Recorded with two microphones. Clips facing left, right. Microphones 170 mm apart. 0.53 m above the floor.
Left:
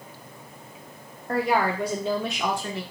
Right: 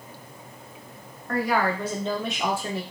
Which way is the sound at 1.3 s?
30° left (ahead or behind).